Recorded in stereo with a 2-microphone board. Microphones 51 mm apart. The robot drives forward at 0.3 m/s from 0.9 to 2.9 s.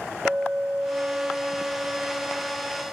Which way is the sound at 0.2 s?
25° right (ahead or behind).